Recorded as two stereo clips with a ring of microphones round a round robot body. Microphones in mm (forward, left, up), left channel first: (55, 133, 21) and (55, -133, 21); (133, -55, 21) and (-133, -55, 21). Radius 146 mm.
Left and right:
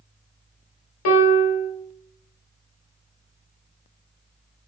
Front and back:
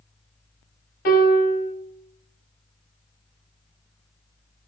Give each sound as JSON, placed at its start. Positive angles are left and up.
{"t": 1.1, "sound": "a piano", "azimuth_deg": 65, "distance_m": 0.9}